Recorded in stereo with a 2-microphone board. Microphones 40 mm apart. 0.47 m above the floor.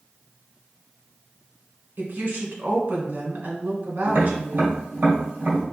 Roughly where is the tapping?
Right.